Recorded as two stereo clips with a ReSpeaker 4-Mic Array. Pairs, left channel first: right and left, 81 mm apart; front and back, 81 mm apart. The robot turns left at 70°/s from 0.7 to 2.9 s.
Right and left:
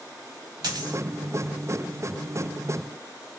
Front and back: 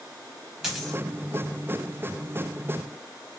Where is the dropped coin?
95° left, 0.7 m; by 1.0 s 75° left, 0.7 m.